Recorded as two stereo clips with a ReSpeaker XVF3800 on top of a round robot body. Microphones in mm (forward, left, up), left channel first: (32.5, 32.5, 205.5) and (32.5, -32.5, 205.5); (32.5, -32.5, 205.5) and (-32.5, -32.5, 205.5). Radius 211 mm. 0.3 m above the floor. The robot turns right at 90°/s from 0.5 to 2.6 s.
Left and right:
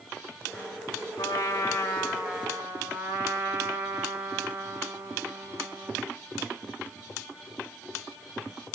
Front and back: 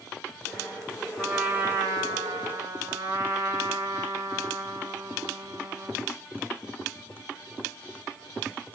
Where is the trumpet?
85° left, 5.5 m; by 6.2 s 145° right, 5.5 m.